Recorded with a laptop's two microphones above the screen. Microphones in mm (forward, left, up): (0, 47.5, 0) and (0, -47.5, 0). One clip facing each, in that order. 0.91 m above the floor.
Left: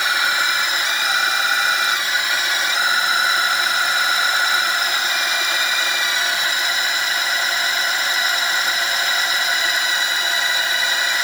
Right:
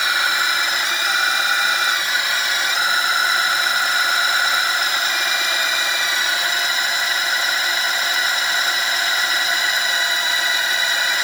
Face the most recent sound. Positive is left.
No sound to turn to.